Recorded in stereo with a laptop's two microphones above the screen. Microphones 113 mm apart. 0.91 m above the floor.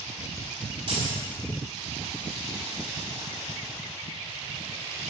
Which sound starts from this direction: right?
Keys jangling, at 0.9 s.